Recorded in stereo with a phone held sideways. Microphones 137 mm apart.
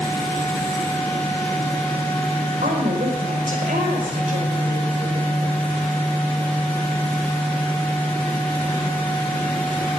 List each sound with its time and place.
0.0 s a fan: 15° left (ahead or behind), 8.5 m
2.6 s a woman speaking: 80° right, 5 m